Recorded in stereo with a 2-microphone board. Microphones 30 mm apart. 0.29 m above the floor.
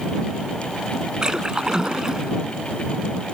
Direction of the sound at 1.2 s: 25° right (ahead or behind).